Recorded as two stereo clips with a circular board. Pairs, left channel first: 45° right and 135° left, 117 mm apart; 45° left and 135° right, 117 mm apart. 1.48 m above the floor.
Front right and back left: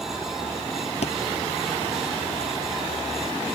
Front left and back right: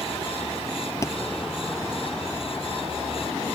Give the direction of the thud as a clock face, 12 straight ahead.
1 o'clock.